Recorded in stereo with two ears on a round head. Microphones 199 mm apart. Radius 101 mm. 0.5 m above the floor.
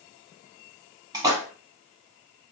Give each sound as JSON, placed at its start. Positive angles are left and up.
{"t": 1.1, "sound": "a splash", "side_deg": -20, "distance_m": 0.8}